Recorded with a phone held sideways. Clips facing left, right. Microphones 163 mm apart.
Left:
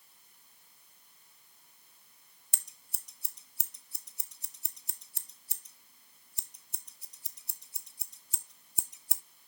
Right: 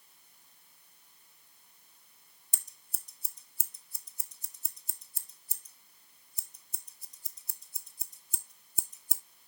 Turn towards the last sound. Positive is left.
turn(degrees=70)  # may be behind; listen again after turning